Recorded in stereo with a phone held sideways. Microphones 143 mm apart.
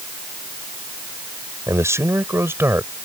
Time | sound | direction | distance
1.7 | a man speaking | 20° right (ahead or behind) | ?